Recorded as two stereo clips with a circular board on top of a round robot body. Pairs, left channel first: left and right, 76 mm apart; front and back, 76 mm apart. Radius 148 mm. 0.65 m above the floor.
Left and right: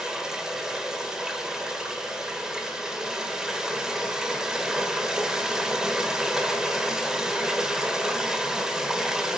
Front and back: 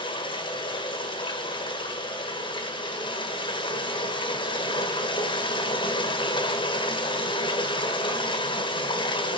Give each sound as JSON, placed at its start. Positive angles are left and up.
{"t": 0.0, "sound": "running water", "azimuth_deg": -10, "distance_m": 1.6}